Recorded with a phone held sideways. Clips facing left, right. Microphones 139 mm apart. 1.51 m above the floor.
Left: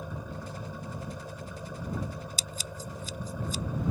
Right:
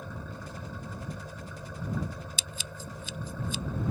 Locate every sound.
0.0 s an engine running: 15° left (ahead or behind)
2.4 s scissors: 40° left (ahead or behind)